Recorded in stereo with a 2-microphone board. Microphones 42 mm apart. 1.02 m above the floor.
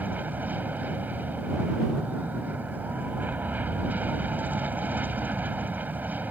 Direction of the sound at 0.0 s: 50° right (ahead or behind).